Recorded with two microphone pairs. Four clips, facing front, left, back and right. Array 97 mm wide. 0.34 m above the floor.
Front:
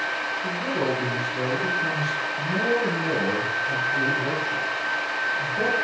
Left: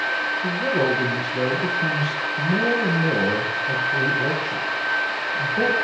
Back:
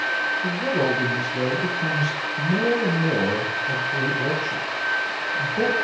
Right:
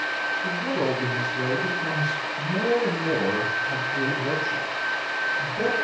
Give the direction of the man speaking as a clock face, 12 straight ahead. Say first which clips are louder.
Left 5 dB, back 1 dB; 8 o'clock.